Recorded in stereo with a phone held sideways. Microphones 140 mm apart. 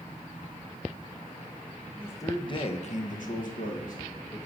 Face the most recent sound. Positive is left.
turn(degrees=60)  # may be behind; listen again after turning